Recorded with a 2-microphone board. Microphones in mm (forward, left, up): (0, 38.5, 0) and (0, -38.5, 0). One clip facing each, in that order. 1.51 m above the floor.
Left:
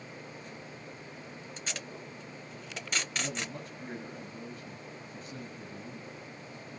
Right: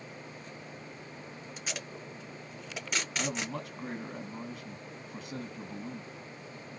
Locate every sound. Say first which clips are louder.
1.6 s tape being pulled: right 1 dB; 5° right (ahead or behind), 1.2 m
3.2 s a man speaking: right 2 dB; 80° right, 1.4 m